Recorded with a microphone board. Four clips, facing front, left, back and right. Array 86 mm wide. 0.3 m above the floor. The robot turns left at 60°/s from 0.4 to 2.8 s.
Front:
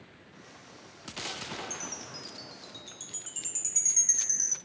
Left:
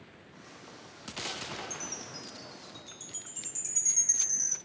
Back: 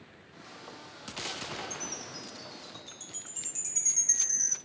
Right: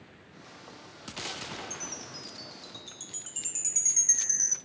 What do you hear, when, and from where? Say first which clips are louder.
1.7 s a chime: even, back 1 dB; straight ahead, 1.1 m; by 4.5 s 65° right, 1.1 m